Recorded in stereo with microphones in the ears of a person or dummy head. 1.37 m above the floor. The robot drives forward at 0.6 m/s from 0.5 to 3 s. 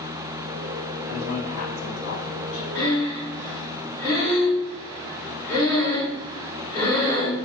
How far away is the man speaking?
About 2.5 m.